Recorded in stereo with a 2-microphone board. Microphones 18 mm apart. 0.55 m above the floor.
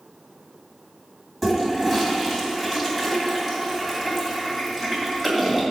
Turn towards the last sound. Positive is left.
turn(degrees=0)  # may be behind; listen again after turning